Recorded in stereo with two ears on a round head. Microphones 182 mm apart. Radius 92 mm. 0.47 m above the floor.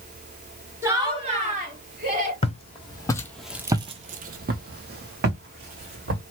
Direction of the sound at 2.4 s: 30° left (ahead or behind).